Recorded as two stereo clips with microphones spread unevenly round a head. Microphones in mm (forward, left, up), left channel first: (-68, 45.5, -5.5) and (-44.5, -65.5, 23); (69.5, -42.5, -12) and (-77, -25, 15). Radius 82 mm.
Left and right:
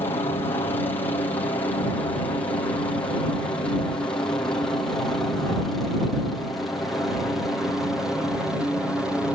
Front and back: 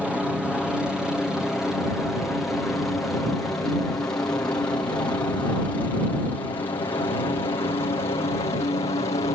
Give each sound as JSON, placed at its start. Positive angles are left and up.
{"t": 0.0, "sound": "a helicopter", "azimuth_deg": 80}